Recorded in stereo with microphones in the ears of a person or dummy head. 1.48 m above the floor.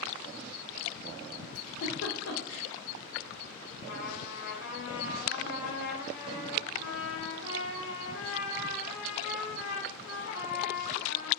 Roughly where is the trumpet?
Left.